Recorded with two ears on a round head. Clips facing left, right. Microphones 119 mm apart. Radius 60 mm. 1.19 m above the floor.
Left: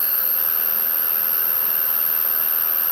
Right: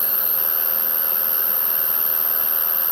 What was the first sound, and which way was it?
An insect, 25° right (ahead or behind).